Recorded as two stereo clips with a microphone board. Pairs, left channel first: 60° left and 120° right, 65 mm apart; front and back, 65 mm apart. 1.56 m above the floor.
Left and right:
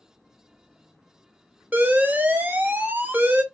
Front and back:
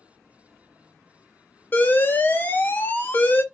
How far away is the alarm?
About 0.7 m.